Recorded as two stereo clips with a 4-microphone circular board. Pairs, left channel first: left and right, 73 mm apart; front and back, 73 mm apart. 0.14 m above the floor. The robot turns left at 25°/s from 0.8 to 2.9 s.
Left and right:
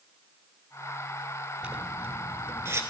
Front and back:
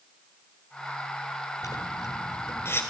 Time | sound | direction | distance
1.6 | a zipper | 15° right | 1.5 m